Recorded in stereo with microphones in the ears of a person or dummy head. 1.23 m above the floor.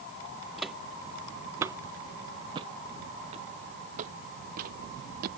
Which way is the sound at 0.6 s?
Centre (ahead or behind).